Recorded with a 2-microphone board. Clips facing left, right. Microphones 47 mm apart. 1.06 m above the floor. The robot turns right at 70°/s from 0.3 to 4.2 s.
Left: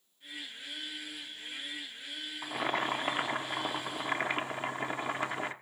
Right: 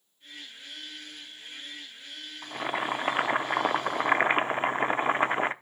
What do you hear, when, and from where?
2.4 s boiling: 170° left, 0.7 m; by 5.5 s 65° right, 0.7 m